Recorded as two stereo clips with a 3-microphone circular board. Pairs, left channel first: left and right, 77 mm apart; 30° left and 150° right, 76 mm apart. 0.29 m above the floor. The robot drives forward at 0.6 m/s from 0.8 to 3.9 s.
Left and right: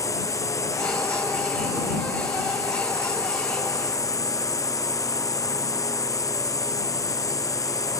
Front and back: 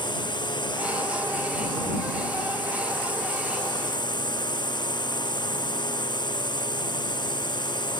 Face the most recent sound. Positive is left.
turn(degrees=45)